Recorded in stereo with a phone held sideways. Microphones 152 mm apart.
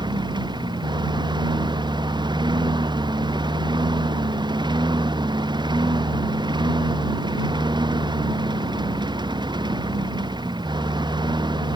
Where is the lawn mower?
30° right (ahead or behind).